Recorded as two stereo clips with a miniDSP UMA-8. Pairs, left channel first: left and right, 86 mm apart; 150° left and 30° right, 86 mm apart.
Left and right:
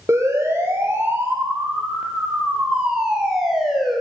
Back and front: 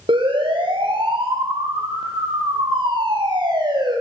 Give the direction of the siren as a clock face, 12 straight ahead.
1 o'clock.